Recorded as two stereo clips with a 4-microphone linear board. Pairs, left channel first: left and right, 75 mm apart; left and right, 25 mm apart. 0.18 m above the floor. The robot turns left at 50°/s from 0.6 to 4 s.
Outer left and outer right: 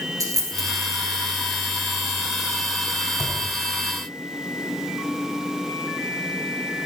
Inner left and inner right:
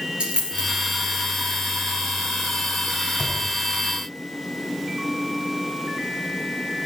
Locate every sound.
0.2 s a dropped coin: 50° right (ahead or behind), 1.6 m; by 0.7 s 45° right (ahead or behind), 1.6 m
3.2 s a thud: 40° left (ahead or behind), 4 m; by 3.4 s 50° left (ahead or behind), 4 m